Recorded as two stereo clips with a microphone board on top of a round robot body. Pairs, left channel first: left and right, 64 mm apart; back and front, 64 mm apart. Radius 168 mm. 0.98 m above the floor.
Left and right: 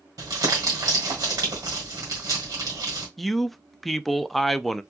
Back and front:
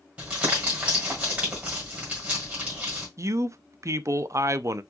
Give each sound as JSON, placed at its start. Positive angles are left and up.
{"t": 0.2, "sound": "crumpling", "azimuth_deg": -70, "distance_m": 1.6}
{"t": 3.2, "sound": "a man speaking", "azimuth_deg": 0, "distance_m": 0.7}